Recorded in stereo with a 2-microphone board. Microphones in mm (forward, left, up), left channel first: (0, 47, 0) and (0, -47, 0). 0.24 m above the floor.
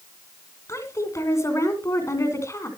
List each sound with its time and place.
0.7 s a woman speaking: 30° left (ahead or behind), 3 m